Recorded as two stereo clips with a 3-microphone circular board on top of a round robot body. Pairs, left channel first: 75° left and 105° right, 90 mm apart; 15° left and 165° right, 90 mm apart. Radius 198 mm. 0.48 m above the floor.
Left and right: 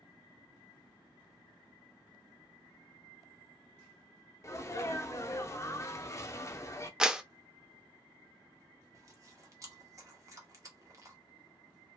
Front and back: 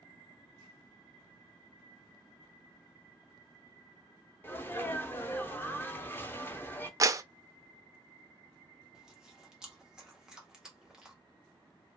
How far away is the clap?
About 0.5 m.